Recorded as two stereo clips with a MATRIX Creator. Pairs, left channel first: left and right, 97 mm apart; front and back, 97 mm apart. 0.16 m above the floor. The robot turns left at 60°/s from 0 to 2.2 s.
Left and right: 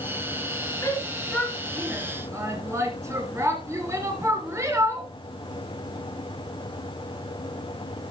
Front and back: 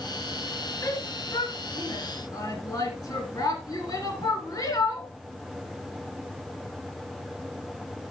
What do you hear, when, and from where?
0.8 s a shout: 45° left, 2.5 m; by 5.1 s 35° right, 2.5 m